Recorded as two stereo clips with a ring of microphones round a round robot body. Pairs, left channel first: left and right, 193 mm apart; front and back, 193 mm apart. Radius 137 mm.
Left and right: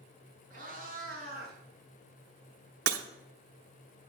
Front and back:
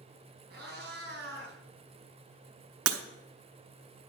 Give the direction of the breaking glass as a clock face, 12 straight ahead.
5 o'clock.